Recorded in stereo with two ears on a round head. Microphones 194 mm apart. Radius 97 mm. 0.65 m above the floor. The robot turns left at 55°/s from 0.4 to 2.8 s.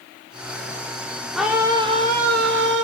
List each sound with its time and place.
1.4 s a scream: straight ahead, 1.9 m; by 2.8 s 80° right, 1.9 m